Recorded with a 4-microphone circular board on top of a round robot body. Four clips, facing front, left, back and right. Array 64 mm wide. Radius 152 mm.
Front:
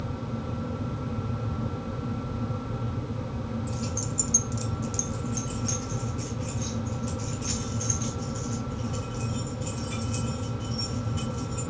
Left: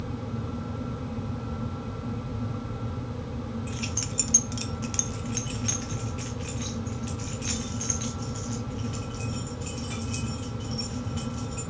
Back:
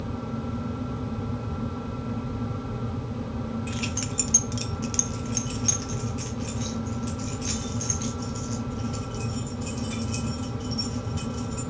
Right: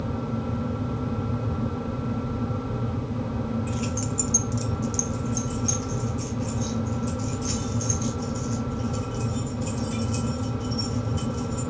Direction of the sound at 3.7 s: Straight behind.